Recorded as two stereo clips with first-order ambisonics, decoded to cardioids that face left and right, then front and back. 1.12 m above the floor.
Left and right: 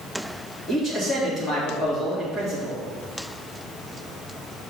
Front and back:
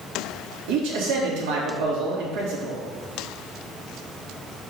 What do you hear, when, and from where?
0.7 s a man speaking: 165° left, 2.5 m